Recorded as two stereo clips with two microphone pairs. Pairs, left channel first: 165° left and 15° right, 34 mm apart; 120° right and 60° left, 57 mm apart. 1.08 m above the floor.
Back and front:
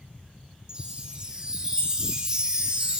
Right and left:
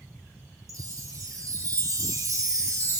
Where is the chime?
50° left, 3.5 m.